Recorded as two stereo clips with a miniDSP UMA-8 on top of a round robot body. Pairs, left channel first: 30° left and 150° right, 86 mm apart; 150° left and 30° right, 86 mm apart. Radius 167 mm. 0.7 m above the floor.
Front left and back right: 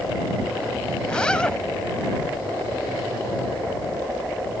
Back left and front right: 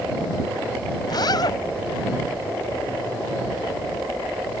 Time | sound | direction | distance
1.0 | a zipper | 110° left | ?